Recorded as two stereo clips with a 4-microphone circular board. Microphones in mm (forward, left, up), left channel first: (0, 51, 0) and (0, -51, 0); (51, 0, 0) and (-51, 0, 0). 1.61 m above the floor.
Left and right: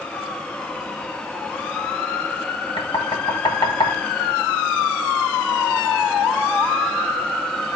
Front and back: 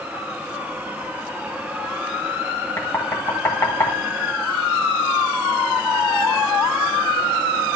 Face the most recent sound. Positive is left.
turn(degrees=65)